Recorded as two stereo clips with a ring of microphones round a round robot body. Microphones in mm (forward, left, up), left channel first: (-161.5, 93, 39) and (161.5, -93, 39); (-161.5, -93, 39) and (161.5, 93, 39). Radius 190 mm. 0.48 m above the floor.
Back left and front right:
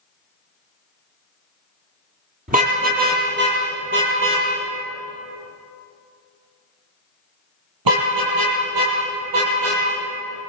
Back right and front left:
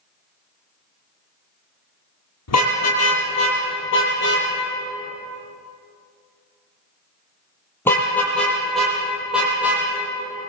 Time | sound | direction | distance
2.5 | a car horn | 100° right | 8.5 m